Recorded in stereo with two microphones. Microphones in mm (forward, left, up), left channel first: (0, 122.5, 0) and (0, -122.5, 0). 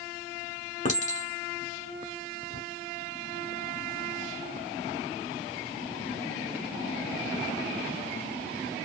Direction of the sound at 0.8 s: 30° left (ahead or behind).